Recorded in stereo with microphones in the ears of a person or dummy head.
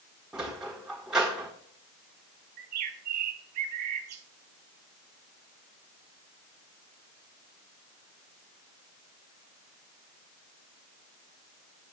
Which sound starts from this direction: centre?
A sliding door, at 0.3 s.